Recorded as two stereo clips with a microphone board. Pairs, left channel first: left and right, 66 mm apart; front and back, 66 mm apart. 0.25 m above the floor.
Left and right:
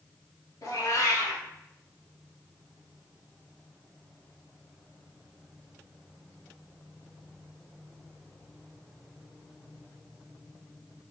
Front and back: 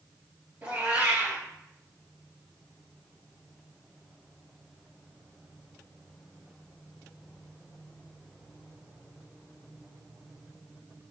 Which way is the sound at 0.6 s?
115° left.